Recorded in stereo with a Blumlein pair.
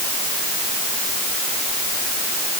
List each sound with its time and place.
Only background noise.